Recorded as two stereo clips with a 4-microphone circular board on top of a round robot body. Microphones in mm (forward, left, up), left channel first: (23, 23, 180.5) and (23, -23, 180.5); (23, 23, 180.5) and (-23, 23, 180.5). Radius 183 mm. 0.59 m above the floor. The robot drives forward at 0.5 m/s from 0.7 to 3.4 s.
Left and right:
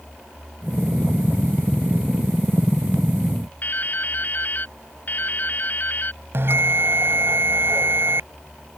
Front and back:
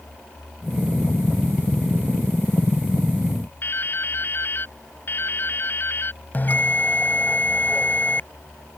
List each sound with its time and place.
3.6 s dripping: 40° left
6.3 s a bell: 50° right